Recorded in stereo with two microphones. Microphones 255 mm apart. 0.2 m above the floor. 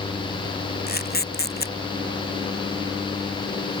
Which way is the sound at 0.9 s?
40° left (ahead or behind).